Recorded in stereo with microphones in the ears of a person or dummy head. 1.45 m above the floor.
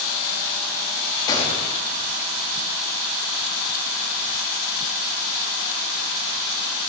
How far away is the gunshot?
About 2 m.